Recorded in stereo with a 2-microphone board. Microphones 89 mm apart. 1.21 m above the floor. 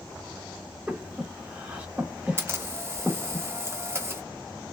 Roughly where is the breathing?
Centre.